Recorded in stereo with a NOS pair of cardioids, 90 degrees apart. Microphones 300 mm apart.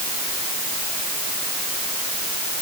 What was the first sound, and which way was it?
Only background noise.